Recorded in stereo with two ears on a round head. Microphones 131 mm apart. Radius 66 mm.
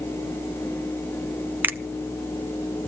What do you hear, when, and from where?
1.6 s a finger snap: 15° right (ahead or behind), 0.7 m